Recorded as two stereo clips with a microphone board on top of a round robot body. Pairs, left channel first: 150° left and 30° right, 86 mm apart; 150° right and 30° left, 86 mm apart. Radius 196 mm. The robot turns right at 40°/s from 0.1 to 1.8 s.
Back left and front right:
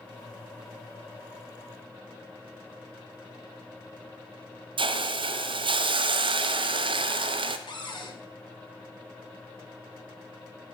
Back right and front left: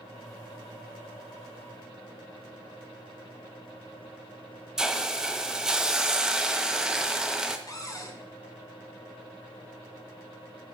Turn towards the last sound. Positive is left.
turn(degrees=165)